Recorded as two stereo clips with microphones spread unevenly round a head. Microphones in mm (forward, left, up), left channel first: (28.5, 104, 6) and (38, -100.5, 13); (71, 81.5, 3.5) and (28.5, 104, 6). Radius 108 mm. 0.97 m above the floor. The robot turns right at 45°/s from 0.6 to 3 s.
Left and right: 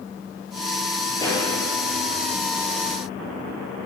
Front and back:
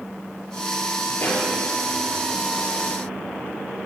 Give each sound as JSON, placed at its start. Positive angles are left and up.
{"t": 1.2, "sound": "a pop", "azimuth_deg": 15, "distance_m": 3.5}